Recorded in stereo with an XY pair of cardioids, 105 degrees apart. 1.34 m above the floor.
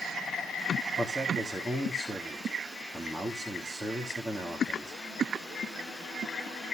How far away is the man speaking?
About 3.5 m.